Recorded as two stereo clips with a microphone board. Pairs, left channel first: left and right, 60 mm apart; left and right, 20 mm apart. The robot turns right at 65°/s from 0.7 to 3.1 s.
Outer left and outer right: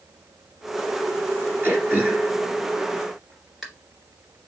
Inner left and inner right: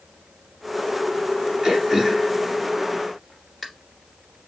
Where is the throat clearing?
35° right (ahead or behind), 2 m; by 3.7 s centre (ahead or behind), 2 m.